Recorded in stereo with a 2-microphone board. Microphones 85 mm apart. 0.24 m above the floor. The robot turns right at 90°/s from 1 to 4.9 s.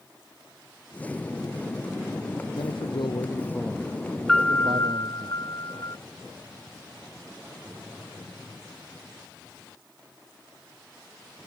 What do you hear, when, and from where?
2.6 s a man speaking: 70° left; by 5.3 s 80° right
4.3 s a piano: 5° left; by 6.0 s 55° left